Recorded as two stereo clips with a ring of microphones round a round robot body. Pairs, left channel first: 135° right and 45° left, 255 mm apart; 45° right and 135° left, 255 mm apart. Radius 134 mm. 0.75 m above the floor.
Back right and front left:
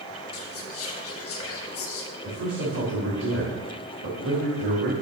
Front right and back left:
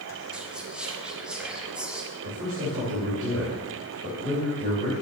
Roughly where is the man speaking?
Left.